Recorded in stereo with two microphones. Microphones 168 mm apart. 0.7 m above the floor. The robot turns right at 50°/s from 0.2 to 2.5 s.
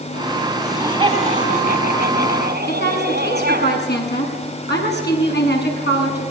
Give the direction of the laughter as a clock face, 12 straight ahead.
6 o'clock.